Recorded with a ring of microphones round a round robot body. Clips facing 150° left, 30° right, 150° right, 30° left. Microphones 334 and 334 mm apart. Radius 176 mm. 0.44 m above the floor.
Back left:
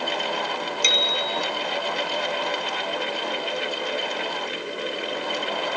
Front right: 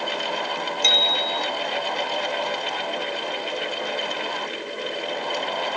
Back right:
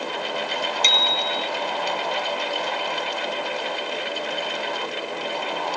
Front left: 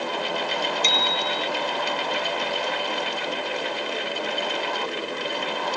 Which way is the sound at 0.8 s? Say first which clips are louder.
Front right 1 dB, front left 1 dB; 125° right.